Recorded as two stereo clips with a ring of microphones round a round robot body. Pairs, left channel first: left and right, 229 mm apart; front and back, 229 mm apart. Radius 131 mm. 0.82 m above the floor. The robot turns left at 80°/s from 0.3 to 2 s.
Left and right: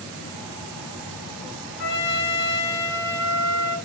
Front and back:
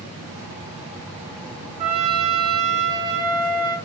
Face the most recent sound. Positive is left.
turn(degrees=110)